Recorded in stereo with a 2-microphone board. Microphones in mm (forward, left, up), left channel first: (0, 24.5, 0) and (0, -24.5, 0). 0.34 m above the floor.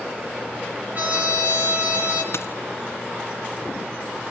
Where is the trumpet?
35° right (ahead or behind), 4.5 m.